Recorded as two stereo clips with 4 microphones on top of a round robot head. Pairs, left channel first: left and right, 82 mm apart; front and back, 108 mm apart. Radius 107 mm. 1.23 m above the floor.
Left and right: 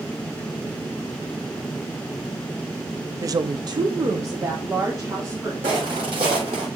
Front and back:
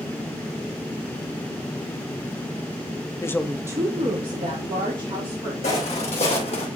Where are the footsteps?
45° right, 3 m; by 6.7 s 50° right, 1.9 m.